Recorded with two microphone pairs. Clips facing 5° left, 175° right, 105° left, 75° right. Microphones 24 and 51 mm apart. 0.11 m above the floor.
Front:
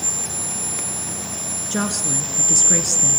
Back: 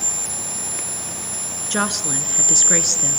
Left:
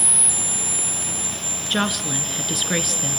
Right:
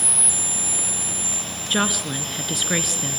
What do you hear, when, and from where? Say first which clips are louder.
1.7 s a woman speaking: back 2 dB, even; 160° right, 1.3 m